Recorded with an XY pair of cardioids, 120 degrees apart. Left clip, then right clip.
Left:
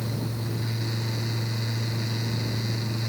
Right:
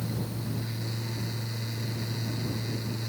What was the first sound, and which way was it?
A fan, 30° left.